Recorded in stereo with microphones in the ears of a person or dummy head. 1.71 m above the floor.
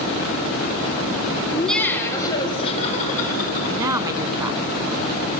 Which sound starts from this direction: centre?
Laughter, at 1.5 s.